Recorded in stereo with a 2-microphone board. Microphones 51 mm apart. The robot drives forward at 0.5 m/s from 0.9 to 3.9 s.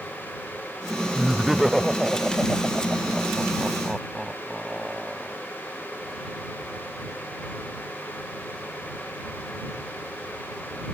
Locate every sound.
1.1 s laughter: 5° right (ahead or behind)